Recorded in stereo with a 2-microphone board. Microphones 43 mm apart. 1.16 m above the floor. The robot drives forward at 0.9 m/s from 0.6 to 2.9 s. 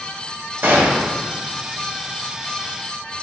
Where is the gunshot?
55° right (ahead or behind), 1.7 m; by 1.1 s 45° right (ahead or behind), 2.0 m.